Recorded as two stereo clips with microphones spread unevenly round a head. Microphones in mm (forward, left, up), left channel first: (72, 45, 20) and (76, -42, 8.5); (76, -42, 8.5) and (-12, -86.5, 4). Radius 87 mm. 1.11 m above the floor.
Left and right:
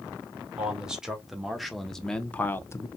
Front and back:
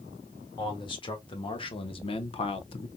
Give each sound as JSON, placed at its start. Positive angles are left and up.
{"t": 0.6, "sound": "a man speaking", "azimuth_deg": -10, "distance_m": 2.0}